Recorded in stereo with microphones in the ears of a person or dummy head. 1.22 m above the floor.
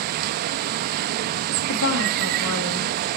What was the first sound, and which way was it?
Running water, 50° right (ahead or behind).